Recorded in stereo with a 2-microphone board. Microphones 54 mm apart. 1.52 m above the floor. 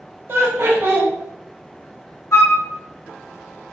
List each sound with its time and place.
0.3 s laughter: 40° right (ahead or behind), 0.8 m
2.3 s a flute: 50° left (ahead or behind), 0.7 m